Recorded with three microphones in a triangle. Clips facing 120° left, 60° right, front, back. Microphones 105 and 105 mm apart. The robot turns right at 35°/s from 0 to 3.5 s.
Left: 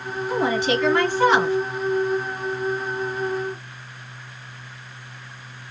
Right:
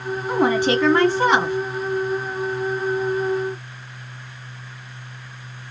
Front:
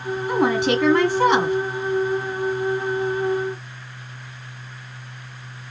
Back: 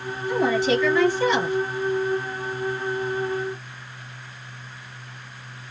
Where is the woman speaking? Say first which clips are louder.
Right 3 dB, front 1 dB; 30° right, 2.5 m; by 1.6 s 15° left, 2.5 m.